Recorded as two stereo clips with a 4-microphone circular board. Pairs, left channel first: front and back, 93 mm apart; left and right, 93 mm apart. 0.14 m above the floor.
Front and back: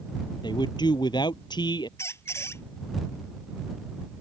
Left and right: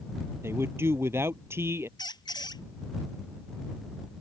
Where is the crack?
I don't hear a crack.